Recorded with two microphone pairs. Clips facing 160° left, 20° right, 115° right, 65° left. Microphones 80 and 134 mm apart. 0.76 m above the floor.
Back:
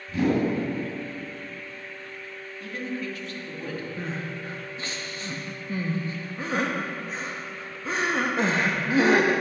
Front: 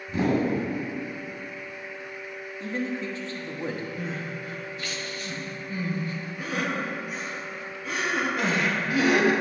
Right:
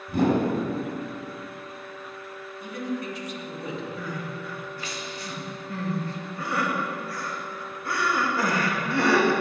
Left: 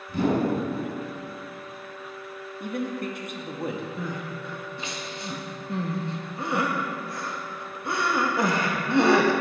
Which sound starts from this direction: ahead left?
A man speaking, at 2.6 s.